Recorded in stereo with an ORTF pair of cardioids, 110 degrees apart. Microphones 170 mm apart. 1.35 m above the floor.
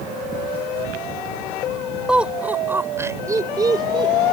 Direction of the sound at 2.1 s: 5° right.